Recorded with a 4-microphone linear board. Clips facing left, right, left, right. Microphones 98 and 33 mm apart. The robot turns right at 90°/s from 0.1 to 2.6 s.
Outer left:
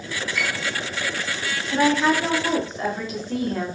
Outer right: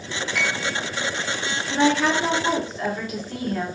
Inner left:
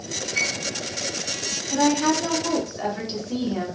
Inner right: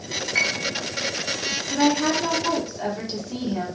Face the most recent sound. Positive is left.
turn(degrees=40)